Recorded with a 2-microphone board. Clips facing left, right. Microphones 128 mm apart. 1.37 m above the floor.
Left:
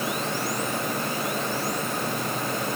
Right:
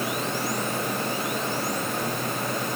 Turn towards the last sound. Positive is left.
No sound to turn to.